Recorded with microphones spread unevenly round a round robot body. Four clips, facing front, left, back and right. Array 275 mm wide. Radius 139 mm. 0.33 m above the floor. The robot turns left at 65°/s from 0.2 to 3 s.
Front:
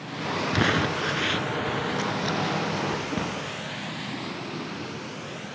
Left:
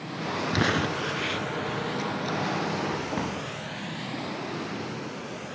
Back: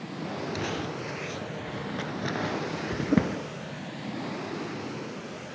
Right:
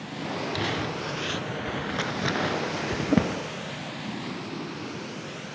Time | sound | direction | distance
0.5 | crumpling | 35° left | 1.0 m